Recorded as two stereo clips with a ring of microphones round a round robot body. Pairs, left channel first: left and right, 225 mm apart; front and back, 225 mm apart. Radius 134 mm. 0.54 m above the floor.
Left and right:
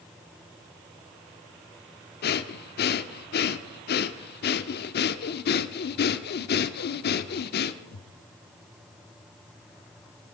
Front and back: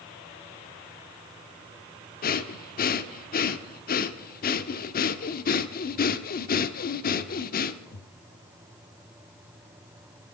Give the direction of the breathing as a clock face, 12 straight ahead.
10 o'clock.